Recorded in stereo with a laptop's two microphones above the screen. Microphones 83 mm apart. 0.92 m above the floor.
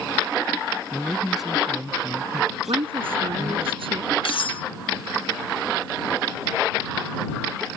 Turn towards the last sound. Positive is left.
turn(degrees=75)  # may be behind; listen again after turning